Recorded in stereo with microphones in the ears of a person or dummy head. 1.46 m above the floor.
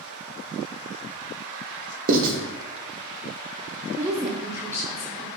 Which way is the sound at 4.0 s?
15° right (ahead or behind).